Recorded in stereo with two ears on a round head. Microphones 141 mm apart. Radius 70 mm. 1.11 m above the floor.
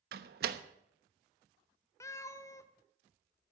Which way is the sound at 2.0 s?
20° left (ahead or behind).